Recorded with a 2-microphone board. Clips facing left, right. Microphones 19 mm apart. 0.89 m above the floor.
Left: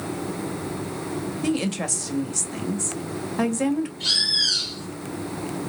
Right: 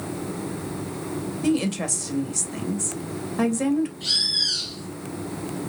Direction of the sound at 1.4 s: 15° left (ahead or behind).